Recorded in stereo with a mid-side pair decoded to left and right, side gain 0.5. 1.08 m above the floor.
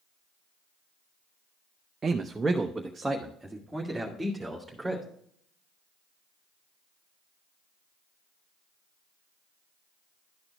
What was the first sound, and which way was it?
A man speaking, 35° right.